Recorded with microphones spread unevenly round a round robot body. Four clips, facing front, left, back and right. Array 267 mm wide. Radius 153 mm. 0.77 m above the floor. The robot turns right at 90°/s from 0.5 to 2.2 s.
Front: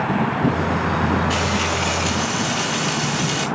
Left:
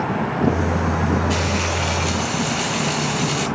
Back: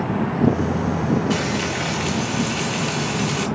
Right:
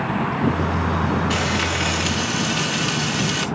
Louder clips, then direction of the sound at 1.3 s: Even, front 1 dB; 170° right.